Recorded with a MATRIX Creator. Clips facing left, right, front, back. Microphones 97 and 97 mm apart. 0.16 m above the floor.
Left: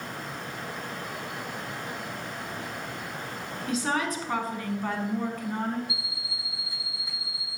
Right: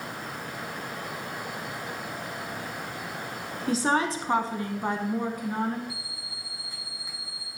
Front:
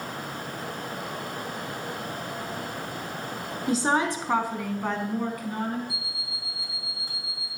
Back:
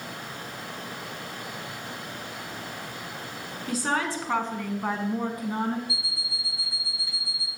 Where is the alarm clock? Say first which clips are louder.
Left 2 dB, back 1 dB; 170° left, 2 m.